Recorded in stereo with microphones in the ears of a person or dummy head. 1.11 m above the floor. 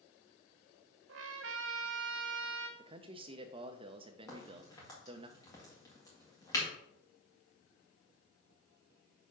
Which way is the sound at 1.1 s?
65° right (ahead or behind).